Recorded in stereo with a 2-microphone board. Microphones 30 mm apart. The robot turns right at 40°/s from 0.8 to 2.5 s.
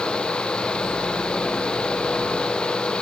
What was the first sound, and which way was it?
Only background noise.